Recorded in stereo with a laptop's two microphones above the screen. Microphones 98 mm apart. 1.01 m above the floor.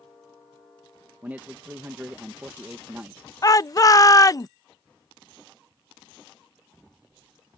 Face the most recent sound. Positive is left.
turn(degrees=35)  # may be behind; listen again after turning